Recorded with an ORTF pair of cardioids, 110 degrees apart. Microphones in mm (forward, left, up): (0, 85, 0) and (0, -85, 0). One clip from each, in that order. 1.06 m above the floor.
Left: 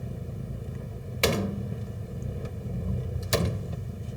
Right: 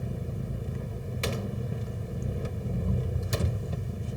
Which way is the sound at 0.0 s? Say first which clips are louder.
Right 2 dB; 15° right.